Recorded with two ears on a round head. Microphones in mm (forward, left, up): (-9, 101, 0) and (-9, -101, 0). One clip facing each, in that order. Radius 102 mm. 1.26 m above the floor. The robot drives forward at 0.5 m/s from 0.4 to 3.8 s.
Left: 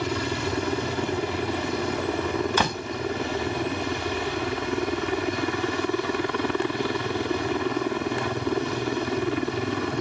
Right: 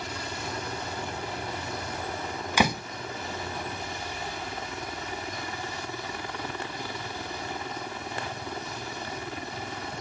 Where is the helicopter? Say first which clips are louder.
Left 10 dB; 60° left (ahead or behind).